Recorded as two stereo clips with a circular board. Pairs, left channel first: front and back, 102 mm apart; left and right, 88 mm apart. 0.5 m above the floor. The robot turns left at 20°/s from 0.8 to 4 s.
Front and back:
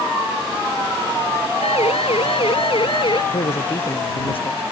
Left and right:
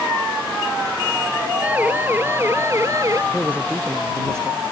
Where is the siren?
15° right; by 3.2 s 40° right.